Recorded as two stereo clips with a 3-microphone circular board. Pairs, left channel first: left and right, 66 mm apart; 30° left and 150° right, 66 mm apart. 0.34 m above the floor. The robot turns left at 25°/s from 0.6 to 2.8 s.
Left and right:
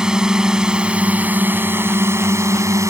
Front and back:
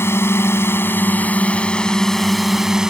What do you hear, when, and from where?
0.0 s a drone: 15° right; by 2.9 s 70° right